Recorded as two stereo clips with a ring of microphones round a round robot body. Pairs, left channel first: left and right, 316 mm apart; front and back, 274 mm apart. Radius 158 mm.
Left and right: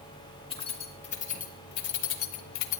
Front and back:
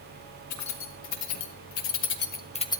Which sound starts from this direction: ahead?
Keys jangling, at 0.5 s.